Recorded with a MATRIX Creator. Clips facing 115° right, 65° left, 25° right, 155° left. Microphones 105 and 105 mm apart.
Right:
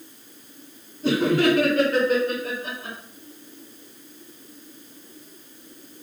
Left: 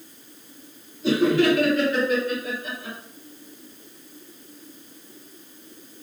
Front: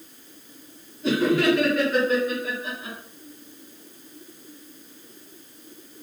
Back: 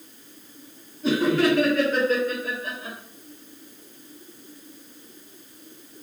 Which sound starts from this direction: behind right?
Laughter, at 1.0 s.